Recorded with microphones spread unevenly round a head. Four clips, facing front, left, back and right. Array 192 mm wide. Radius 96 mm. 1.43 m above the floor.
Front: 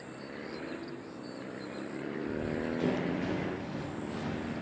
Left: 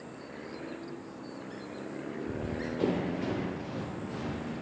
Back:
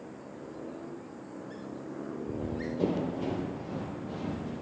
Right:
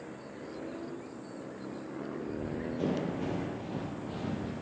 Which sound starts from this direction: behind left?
Running footsteps, at 2.3 s.